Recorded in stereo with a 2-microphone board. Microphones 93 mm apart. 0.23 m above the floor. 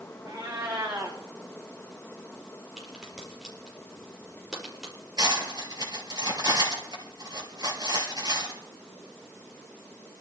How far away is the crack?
About 6 m.